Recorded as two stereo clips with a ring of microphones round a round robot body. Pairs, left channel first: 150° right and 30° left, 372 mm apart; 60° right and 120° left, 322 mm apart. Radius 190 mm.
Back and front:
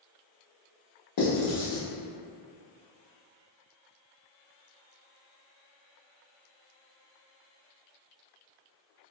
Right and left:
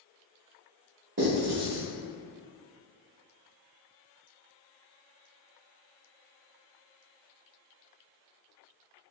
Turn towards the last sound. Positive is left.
turn(degrees=175)